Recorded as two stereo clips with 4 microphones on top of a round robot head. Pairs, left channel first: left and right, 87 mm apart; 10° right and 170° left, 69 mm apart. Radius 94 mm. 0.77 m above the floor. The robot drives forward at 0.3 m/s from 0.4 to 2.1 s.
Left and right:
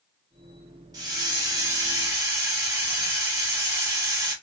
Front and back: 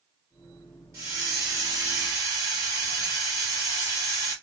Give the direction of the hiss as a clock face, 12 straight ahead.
5 o'clock.